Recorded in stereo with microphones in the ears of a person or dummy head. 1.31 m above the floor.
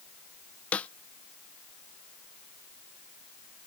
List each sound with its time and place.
0.7 s a snare drum: 15° left (ahead or behind)